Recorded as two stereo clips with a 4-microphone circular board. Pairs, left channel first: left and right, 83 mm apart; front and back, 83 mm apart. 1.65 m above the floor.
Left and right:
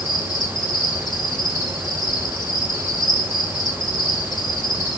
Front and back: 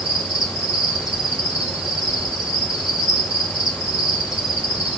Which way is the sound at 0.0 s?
100° left.